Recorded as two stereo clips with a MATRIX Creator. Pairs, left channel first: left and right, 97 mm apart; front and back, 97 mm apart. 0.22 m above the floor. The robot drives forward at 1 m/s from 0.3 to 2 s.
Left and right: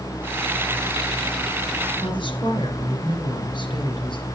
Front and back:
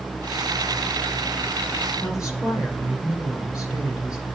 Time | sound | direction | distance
2.0 | a woman speaking | 95° left | 2.5 m